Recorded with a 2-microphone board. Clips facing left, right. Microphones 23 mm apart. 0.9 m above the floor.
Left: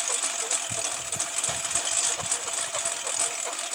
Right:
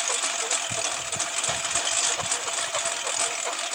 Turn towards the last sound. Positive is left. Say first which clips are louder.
# right 3 dB
turn(degrees=-15)  # may be behind; listen again after turning